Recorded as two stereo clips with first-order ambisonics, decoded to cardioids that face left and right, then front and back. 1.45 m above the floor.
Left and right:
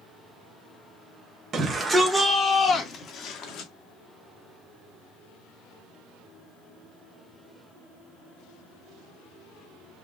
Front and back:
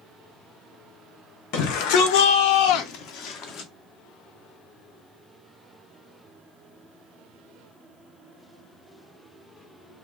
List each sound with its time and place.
1.5 s a shout: 25° right, 1.1 m; by 3.7 s 50° left, 1.6 m